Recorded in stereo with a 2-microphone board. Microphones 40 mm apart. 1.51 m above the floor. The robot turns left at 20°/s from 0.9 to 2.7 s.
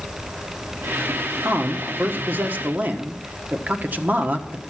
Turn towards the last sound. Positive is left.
turn(degrees=-40)  # may be behind; listen again after turning